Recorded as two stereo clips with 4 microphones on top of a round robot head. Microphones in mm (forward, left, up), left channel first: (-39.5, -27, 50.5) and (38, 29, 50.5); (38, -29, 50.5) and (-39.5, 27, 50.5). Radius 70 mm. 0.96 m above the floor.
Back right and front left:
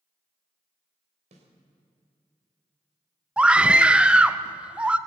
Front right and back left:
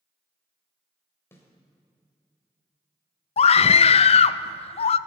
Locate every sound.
1.3 s a snare drum: 30° left, 2.5 m
3.4 s a scream: 45° right, 0.6 m